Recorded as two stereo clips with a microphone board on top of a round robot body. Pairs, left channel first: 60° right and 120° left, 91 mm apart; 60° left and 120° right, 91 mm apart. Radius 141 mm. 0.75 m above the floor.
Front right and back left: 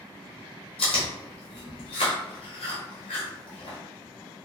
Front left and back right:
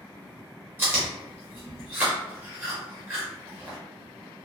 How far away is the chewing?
About 0.8 m.